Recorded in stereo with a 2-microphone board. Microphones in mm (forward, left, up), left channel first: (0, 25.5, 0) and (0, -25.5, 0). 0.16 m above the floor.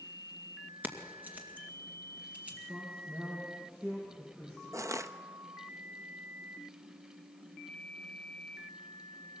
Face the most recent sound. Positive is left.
turn(degrees=-75)  # may be behind; listen again after turning